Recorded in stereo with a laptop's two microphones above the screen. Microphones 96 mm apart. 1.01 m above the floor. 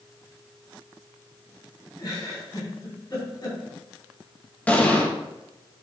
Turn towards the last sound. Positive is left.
turn(degrees=15)  # may be behind; listen again after turning